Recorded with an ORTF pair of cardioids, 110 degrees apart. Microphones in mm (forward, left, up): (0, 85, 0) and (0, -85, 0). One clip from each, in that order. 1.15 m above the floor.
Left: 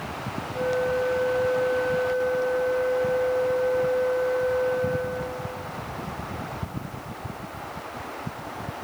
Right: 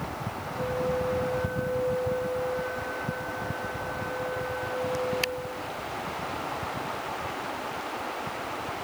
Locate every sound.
0.5 s a flute: 70° left, 1.7 m